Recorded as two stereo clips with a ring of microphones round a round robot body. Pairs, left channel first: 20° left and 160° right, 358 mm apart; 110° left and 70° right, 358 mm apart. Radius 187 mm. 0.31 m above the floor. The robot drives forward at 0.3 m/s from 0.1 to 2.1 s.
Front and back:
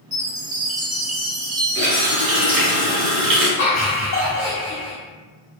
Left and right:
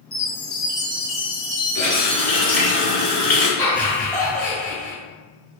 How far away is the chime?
About 1.3 m.